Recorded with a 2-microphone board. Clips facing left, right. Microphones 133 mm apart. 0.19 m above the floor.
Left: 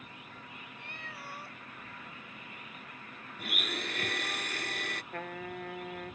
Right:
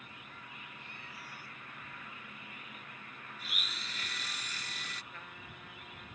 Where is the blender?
70° left (ahead or behind).